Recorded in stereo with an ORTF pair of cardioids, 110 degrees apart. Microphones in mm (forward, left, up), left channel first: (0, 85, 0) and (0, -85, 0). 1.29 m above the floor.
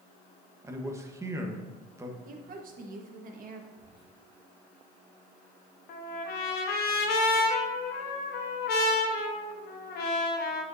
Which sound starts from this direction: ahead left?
A trumpet, at 5.9 s.